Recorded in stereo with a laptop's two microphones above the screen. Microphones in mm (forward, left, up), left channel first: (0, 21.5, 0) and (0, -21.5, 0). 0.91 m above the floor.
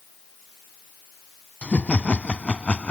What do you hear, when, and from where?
1.6 s laughter: 30° left (ahead or behind)